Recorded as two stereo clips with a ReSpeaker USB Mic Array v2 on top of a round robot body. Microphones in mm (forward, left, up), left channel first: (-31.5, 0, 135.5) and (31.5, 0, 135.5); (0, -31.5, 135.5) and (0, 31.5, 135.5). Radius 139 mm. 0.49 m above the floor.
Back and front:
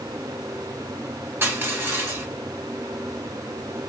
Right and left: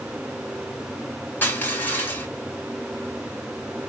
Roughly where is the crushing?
Ahead right.